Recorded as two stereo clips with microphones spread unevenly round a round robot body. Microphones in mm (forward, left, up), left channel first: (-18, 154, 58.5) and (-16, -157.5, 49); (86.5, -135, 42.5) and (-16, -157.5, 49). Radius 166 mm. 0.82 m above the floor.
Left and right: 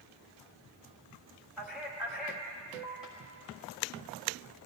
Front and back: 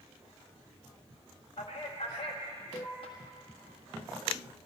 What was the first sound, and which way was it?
A man speaking, 5° right.